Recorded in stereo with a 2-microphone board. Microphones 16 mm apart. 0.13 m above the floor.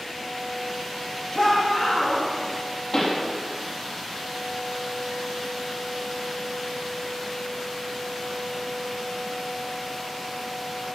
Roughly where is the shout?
Left.